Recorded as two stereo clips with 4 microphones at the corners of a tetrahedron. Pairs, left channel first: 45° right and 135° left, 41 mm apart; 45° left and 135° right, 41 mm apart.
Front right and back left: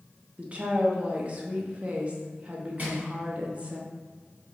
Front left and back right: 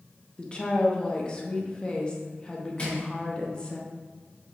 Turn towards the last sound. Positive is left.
turn(degrees=100)